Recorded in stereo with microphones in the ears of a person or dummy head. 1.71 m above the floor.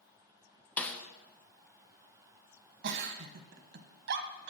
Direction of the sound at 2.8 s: 65° right (ahead or behind).